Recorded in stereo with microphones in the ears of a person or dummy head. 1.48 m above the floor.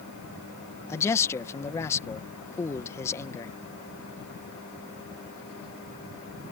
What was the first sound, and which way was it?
A man speaking, 15° left (ahead or behind).